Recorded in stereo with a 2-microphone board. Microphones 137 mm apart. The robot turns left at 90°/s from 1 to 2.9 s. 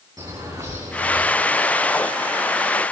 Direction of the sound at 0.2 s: 25° right (ahead or behind).